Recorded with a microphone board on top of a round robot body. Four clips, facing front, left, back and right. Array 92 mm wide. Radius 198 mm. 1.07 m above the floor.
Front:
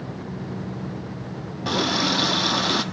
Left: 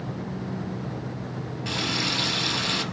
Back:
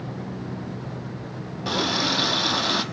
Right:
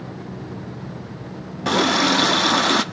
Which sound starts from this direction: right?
A running tap, at 1.6 s.